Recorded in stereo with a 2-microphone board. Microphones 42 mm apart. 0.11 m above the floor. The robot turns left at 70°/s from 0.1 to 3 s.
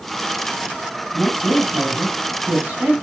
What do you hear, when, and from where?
1.1 s a woman speaking: 20° right, 4.5 m; by 2.9 s 150° right, 4.5 m